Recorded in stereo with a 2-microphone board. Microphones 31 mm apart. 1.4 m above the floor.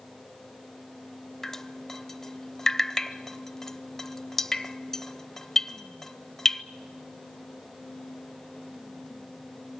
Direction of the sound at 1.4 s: 10° left (ahead or behind).